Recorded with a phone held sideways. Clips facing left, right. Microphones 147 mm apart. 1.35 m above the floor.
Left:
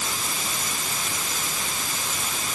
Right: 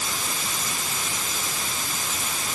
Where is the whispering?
I don't hear whispering.